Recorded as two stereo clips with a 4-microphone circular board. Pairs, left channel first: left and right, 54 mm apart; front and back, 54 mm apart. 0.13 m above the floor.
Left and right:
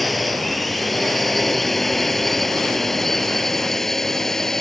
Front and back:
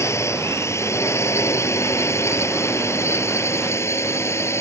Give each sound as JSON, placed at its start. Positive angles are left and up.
{"t": 0.0, "sound": "a drone", "azimuth_deg": 0}